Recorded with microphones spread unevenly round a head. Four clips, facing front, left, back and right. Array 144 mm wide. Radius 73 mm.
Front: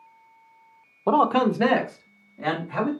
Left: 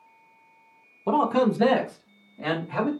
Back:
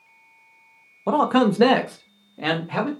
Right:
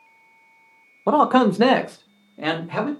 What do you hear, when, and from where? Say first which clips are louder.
1.1 s a man speaking: right 5 dB, back 1 dB; 70° right, 0.6 m; by 2.9 s 130° right, 1.5 m